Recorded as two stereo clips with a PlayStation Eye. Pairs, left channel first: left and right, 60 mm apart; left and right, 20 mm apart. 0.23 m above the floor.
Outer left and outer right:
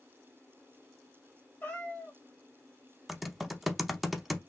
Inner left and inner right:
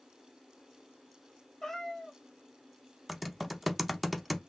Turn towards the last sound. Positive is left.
turn(degrees=0)  # may be behind; listen again after turning